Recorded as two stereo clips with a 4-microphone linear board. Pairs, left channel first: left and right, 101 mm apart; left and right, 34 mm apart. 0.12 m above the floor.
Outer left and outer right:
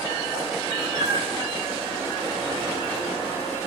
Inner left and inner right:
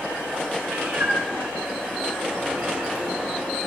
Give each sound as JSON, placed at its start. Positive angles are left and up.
{"t": 0.7, "sound": "a cat meowing", "side_deg": -80, "distance_m": 8.0}